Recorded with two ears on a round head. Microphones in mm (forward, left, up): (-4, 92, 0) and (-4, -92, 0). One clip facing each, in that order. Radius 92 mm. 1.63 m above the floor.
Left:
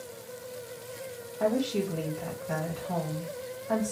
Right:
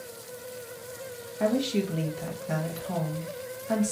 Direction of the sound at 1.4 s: 25° right (ahead or behind).